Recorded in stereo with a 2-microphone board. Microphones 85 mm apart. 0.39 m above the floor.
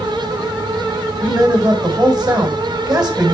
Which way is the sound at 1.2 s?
50° right (ahead or behind).